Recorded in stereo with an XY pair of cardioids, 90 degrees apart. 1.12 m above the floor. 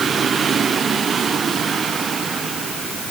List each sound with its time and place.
Only background noise.